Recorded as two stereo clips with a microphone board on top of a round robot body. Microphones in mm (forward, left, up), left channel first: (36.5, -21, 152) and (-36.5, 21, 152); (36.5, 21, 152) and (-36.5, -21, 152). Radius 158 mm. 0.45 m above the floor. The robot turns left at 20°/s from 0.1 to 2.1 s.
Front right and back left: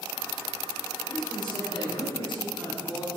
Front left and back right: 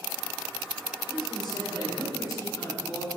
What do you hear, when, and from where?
1.1 s a man speaking: 5° left, 2.5 m; by 3.1 s 15° right, 2.5 m